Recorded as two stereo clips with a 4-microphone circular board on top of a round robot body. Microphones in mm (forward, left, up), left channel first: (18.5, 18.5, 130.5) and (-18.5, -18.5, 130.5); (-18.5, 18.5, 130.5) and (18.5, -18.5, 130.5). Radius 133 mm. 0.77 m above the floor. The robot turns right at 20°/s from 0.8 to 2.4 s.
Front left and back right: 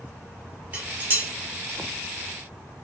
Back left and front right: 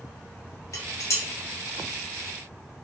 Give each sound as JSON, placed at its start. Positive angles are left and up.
{"t": 0.7, "sound": "dishes clattering", "azimuth_deg": 165, "distance_m": 1.2}